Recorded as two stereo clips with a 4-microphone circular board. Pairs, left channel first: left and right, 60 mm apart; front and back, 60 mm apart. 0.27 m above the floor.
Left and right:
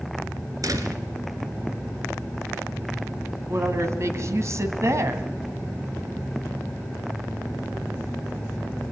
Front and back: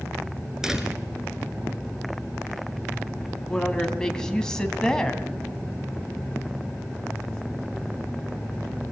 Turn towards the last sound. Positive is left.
turn(degrees=-75)